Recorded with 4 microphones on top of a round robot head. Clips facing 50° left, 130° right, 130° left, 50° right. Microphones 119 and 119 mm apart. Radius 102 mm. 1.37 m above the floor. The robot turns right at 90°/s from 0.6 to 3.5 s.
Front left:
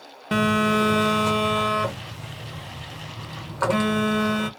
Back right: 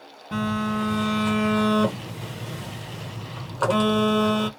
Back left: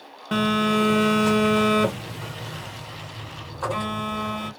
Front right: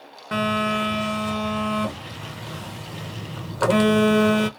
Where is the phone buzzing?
50° left, 0.7 m; by 4.5 s 50° right, 0.7 m.